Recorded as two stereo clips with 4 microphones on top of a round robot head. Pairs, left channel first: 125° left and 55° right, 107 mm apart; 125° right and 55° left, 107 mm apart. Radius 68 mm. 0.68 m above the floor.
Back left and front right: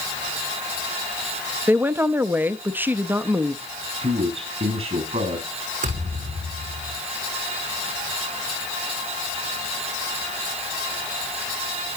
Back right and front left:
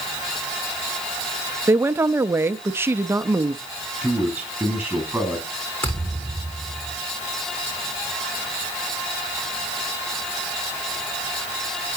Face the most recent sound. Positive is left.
turn(degrees=-55)